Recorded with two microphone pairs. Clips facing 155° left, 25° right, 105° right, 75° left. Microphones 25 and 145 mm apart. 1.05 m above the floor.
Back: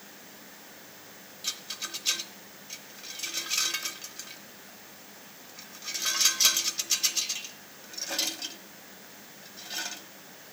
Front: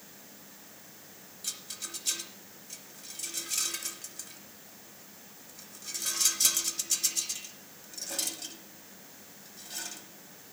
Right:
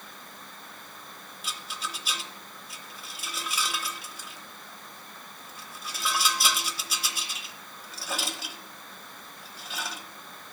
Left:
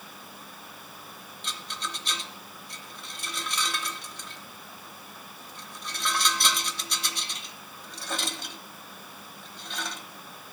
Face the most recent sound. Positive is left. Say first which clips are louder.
# back 5 dB, even
turn(degrees=175)